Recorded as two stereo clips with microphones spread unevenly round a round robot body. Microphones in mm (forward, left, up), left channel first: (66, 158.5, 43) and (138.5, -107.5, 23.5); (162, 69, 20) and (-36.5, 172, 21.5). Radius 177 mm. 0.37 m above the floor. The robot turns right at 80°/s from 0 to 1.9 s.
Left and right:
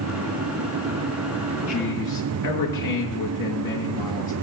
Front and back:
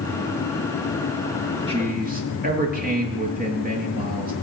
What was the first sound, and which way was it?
A man speaking, 85° left.